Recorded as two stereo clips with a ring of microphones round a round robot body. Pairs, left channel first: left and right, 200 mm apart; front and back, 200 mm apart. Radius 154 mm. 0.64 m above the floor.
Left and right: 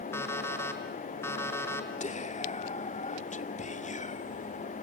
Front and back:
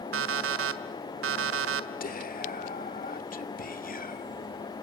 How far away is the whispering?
About 1.8 m.